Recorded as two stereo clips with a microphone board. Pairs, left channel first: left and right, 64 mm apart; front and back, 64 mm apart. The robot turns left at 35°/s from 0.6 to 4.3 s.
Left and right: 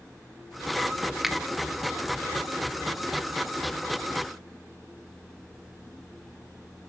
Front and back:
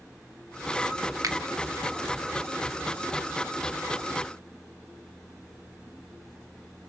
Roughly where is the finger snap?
Behind.